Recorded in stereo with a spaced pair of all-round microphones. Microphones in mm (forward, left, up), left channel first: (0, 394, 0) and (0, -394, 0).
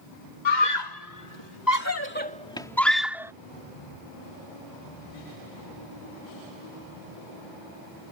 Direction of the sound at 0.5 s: 75° left (ahead or behind).